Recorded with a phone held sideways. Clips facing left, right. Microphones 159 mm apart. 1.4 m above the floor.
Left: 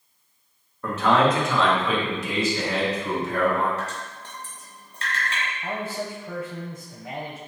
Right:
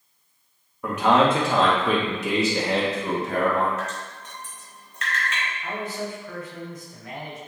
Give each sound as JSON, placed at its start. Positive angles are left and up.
{"t": 0.8, "sound": "a man speaking", "side_deg": -10, "distance_m": 1.1}
{"t": 3.8, "sound": "dripping", "side_deg": 30, "distance_m": 1.1}
{"t": 5.6, "sound": "a man speaking", "side_deg": 50, "distance_m": 0.8}